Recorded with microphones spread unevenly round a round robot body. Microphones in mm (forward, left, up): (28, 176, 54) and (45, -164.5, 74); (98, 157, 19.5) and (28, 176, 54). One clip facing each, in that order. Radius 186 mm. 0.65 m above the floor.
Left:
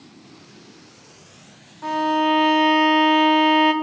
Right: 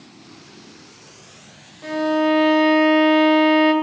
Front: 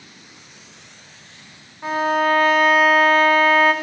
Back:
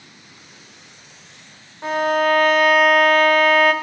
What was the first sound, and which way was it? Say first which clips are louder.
A violin: right 3 dB, back 1 dB; 160° left.